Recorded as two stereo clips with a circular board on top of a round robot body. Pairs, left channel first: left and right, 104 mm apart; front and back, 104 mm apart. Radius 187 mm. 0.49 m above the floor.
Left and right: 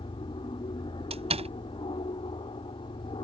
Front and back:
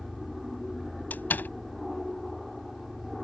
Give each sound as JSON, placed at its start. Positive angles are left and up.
{"t": 0.0, "sound": "an aircraft", "azimuth_deg": 90}
{"t": 1.1, "sound": "a door slam", "azimuth_deg": -75}